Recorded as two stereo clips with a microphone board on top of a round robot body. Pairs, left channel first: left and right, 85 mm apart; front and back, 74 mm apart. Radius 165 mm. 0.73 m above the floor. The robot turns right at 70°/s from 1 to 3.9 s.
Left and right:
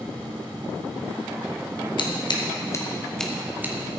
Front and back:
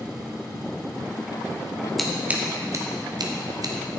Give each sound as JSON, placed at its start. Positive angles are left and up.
{"t": 2.0, "sound": "scissors", "azimuth_deg": 85, "distance_m": 1.7}